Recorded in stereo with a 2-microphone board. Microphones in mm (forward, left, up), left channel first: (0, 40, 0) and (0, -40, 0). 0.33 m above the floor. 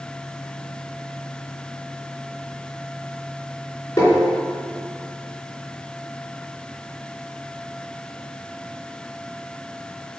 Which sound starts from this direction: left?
Tapping, at 4.0 s.